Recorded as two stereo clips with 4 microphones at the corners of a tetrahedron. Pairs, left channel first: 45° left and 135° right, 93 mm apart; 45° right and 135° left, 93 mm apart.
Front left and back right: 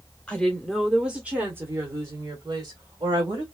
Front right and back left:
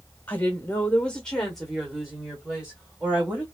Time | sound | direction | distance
0.3 | a woman speaking | 15° right | 1.0 m